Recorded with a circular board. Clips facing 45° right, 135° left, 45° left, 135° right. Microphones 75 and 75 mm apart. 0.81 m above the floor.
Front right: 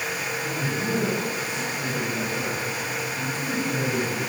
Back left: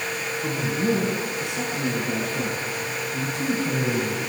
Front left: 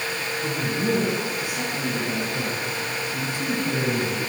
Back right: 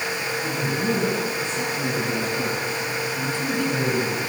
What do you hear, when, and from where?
0.4 s a man speaking: 125° left, 9.5 m; by 4.2 s 115° left, 7.5 m